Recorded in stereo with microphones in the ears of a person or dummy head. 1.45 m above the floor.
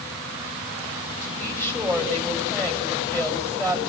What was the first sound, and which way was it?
A woman speaking, 15° left (ahead or behind).